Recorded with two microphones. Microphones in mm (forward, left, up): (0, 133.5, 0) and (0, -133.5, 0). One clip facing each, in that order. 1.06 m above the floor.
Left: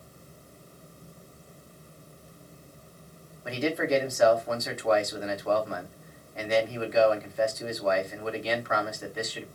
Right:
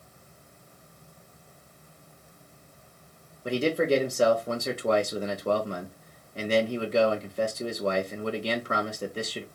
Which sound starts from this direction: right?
A man speaking, at 3.5 s.